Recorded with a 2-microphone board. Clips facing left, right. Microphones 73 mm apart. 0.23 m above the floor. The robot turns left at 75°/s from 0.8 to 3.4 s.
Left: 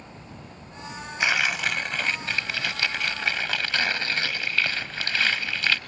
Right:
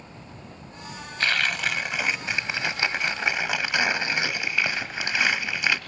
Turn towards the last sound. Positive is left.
turn(degrees=-15)  # may be behind; listen again after turning